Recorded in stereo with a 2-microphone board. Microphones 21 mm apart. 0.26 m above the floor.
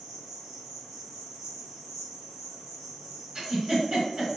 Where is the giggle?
25° right (ahead or behind), 1.6 m.